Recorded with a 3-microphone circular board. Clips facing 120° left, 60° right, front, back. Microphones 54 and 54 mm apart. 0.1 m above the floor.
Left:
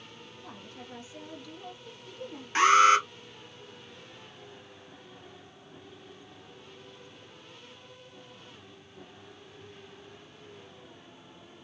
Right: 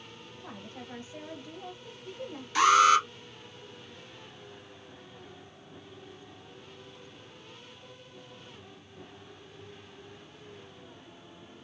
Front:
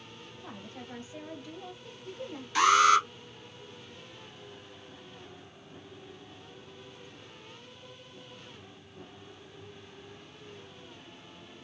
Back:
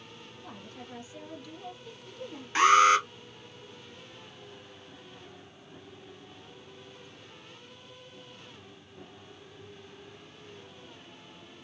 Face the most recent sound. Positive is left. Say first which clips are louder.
# left 1 dB, back 1 dB
turn(degrees=145)